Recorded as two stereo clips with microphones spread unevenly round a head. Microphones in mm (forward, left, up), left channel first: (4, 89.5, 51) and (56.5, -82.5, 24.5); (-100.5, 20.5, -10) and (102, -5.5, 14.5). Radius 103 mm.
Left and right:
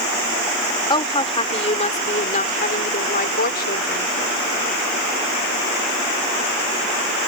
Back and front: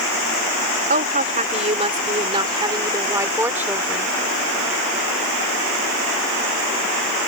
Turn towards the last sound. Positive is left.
turn(degrees=80)